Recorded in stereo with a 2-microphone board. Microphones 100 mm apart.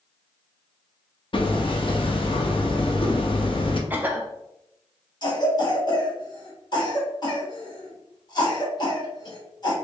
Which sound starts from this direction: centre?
A cough, at 3.9 s.